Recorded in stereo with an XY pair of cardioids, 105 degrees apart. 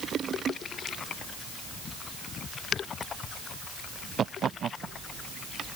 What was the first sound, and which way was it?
Only background noise.